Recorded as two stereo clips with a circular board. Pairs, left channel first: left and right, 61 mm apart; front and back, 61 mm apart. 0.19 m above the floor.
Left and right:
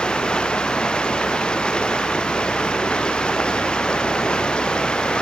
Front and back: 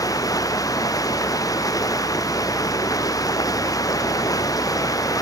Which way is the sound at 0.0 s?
15° left.